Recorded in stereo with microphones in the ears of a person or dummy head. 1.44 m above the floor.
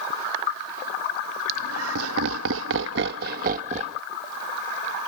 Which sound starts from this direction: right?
Laughter, at 1.5 s.